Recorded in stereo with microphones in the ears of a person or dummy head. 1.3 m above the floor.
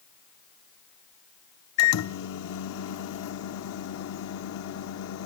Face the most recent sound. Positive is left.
turn(degrees=75)  # may be behind; listen again after turning